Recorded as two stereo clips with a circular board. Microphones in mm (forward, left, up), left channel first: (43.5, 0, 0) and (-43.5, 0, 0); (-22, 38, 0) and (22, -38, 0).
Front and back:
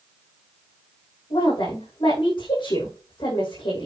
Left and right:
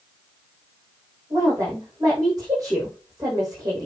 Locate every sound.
1.3 s a woman speaking: 10° right, 5.5 m